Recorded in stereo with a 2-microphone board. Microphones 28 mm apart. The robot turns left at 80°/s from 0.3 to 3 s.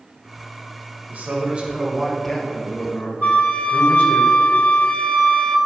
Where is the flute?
50° left (ahead or behind), 0.6 m.